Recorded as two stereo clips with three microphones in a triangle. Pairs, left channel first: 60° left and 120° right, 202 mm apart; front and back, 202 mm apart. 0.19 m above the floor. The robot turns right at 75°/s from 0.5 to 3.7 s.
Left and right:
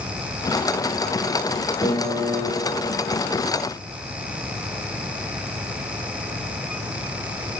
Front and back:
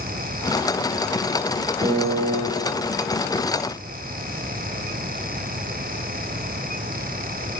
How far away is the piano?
About 4 m.